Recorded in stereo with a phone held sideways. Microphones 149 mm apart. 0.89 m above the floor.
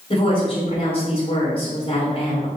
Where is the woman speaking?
35° left (ahead or behind), 4 m.